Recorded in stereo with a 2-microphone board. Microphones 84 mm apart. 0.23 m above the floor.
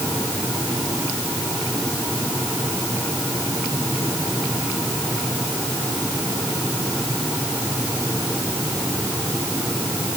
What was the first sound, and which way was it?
Only background noise.